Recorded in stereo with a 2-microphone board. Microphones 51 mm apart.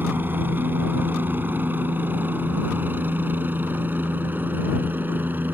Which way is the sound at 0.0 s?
40° right (ahead or behind).